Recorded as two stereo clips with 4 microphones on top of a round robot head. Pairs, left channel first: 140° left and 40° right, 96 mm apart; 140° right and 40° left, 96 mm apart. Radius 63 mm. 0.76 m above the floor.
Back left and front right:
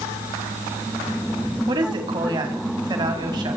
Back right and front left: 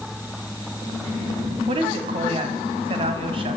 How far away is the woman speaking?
About 4.5 m.